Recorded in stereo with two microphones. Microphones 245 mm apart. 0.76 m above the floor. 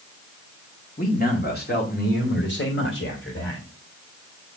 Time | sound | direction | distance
1.0 | a man speaking | 35° left (ahead or behind) | 1.9 m